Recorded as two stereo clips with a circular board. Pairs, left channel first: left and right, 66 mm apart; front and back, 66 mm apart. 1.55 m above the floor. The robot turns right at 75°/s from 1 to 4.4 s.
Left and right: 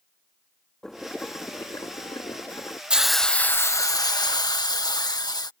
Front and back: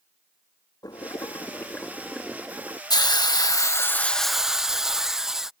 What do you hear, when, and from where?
0.8 s boiling: 5° left; by 2.8 s 140° left
2.9 s a hiss: 15° right; by 5.5 s 95° left